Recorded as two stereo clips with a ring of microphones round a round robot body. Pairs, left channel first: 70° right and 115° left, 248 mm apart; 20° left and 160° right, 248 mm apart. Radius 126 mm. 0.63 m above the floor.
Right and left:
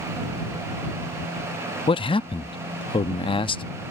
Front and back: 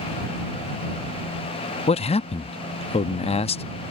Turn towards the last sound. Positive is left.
turn(degrees=-20)